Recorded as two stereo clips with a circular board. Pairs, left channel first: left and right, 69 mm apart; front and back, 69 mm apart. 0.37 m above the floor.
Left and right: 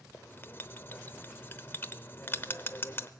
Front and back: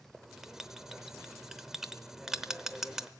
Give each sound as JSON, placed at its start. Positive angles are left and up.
{"t": 0.1, "sound": "writing", "azimuth_deg": 100, "distance_m": 0.7}